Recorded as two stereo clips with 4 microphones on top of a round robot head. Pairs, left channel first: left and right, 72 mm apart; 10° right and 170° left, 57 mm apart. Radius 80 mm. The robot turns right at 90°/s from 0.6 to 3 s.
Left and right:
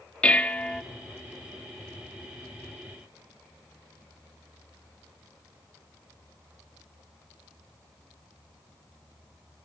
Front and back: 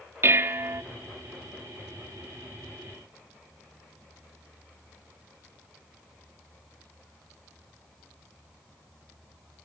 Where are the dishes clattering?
160° left, 0.7 m; by 0.8 s straight behind, 0.7 m.